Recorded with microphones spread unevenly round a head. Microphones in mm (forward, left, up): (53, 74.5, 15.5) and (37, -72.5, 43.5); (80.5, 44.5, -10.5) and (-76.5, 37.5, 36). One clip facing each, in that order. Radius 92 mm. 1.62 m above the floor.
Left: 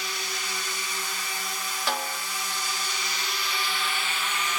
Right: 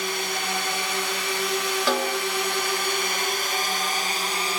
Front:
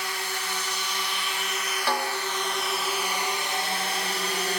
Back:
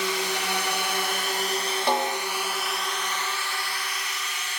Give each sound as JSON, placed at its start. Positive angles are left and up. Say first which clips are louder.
{"t": 0.0, "sound": "a drone", "louder": "right 8 dB, back 6 dB", "azimuth_deg": -145}
{"t": 1.9, "sound": "a snare drum", "louder": "right 6 dB, back 3 dB", "azimuth_deg": -105}